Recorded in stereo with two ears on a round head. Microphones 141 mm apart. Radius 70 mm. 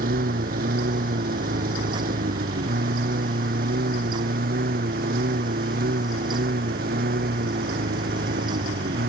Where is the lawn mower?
60° right (ahead or behind).